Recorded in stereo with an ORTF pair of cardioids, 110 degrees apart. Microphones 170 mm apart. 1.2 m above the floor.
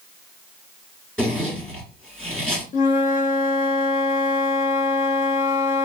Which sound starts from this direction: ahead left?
A flute, at 2.7 s.